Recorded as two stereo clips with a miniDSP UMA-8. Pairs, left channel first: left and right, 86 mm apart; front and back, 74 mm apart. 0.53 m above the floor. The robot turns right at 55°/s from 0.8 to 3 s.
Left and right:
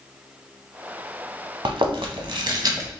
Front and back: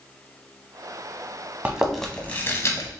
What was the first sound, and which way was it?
Chewing, 105° right.